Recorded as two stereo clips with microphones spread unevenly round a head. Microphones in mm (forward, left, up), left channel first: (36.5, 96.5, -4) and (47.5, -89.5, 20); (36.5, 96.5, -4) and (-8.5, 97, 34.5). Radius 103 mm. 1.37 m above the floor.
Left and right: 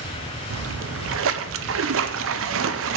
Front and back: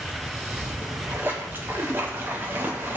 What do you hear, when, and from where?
0.5 s a splash: 90° right, 0.6 m